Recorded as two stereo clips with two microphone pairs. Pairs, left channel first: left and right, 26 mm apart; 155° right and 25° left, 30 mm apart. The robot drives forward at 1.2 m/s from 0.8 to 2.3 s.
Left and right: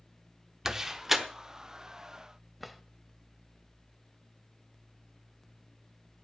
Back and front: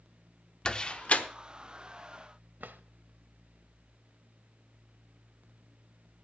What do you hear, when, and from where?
0.7 s a door slam: 145° right, 0.8 m; by 1.2 s 165° right, 1.1 m
2.6 s a drawer: 5° left, 0.6 m